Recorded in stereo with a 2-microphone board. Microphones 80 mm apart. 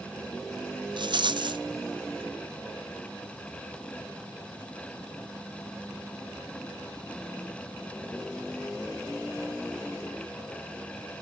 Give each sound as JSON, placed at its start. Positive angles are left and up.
{"t": 1.0, "sound": "a rattle", "side_deg": -75, "distance_m": 0.6}